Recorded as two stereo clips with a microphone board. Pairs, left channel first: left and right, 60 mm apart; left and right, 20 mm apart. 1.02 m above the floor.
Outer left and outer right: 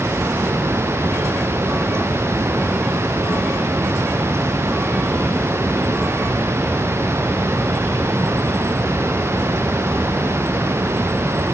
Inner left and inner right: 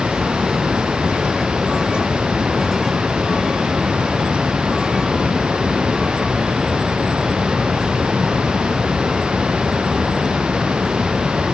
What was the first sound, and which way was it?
Only background noise.